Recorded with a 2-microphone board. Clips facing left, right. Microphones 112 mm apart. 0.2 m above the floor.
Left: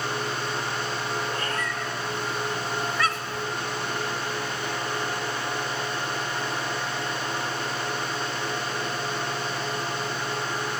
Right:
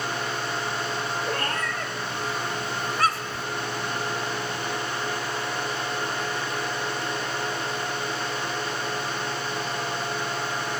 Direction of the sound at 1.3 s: 60° right (ahead or behind).